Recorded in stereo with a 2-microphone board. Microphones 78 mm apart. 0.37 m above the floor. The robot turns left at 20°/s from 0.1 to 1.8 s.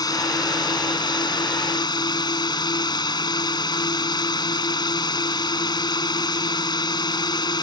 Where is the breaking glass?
No breaking glass in this recording.